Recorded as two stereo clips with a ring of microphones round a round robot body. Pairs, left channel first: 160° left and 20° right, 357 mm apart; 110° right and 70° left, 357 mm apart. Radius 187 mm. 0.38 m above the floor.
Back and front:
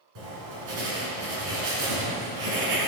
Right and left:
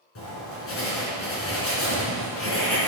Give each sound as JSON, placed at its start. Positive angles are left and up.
{"t": 0.1, "sound": "writing", "azimuth_deg": -60, "distance_m": 4.0}